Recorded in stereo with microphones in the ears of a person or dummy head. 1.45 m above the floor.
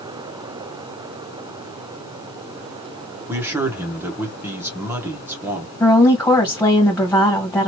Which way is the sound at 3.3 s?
10° right (ahead or behind).